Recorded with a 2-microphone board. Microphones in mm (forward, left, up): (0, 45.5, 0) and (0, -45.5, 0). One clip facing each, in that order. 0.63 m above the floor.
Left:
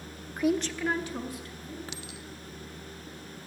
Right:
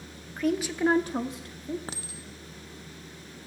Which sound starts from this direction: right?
A clink, at 1.9 s.